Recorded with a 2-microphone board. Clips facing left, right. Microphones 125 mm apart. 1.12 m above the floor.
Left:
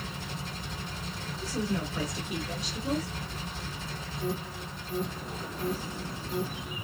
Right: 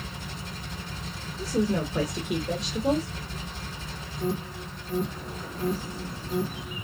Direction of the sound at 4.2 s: 50° right (ahead or behind).